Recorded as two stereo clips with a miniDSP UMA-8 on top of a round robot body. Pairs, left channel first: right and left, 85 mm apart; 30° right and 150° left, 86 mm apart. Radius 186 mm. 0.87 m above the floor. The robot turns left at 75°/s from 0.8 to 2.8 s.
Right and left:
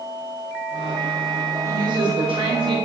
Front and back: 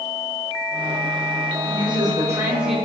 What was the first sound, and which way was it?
A woman speaking, 145° left.